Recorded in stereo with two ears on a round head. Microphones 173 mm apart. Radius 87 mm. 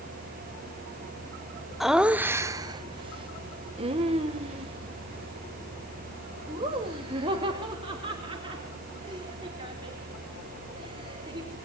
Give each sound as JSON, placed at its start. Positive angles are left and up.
{"t": 1.8, "sound": "laughter", "side_deg": 0, "distance_m": 0.7}